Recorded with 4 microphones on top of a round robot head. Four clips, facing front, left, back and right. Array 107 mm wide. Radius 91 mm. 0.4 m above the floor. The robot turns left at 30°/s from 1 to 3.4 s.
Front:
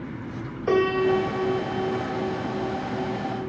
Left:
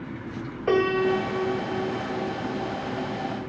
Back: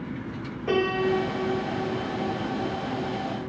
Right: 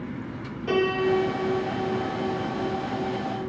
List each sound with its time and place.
0.7 s a piano: 60° left, 2 m; by 3.5 s 15° right, 2 m